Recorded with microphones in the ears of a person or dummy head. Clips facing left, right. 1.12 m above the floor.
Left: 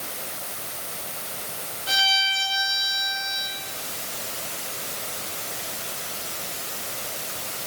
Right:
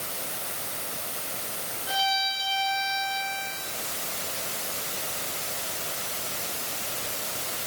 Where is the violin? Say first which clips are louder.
Right 2 dB; 80° left, 4 m.